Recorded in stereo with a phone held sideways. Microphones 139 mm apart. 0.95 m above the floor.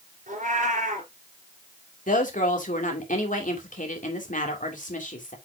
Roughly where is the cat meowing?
Right.